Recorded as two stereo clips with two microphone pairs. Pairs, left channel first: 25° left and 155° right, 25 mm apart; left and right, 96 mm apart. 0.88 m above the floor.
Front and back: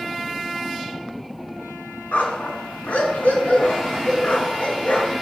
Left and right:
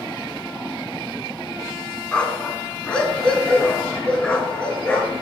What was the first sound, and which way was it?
A dog barking, 10° left.